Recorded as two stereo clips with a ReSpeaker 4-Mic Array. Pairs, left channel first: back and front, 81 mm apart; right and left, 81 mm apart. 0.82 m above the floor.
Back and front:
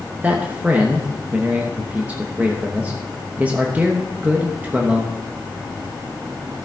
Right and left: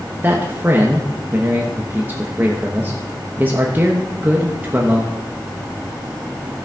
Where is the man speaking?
50° left, 1.1 m.